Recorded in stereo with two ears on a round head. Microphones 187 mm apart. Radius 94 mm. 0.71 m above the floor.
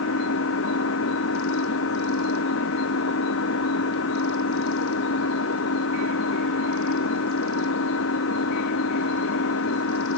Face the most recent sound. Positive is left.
turn(degrees=70)  # may be behind; listen again after turning